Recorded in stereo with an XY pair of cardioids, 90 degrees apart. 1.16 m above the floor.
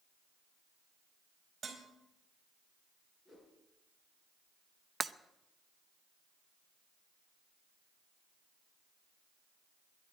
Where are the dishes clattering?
40° right, 4 m.